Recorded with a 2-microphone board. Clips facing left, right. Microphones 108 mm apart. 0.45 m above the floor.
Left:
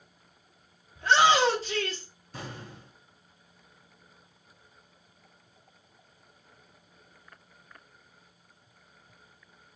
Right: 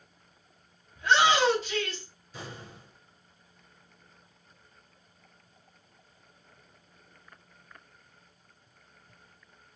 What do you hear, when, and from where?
0.9 s a shout: 35° left (ahead or behind), 2.5 m
2.3 s an explosion: 55° left (ahead or behind), 3 m